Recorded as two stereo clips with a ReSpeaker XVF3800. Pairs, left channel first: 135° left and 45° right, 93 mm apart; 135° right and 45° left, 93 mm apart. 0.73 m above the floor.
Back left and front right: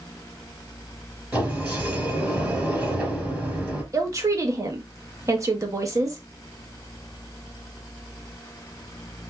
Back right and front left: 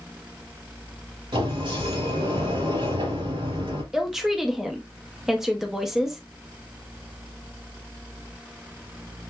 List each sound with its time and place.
1.3 s a sliding door: 35° left, 3 m
3.9 s a woman speaking: 40° right, 1.2 m